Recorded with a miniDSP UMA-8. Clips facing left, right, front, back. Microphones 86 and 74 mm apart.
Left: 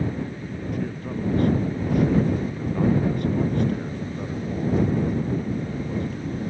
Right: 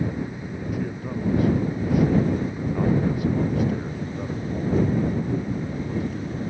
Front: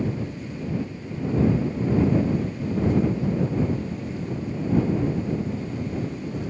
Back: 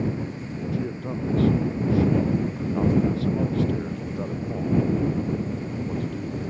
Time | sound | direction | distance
0.7 | a man speaking | 175° right | ?